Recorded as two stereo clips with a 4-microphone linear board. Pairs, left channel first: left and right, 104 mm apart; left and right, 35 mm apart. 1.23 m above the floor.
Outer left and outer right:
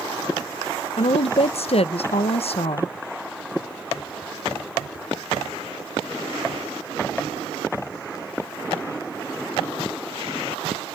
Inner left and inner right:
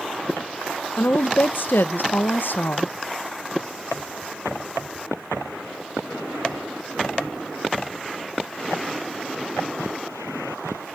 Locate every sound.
1.0 s a woman speaking: 70° left (ahead or behind), 0.6 m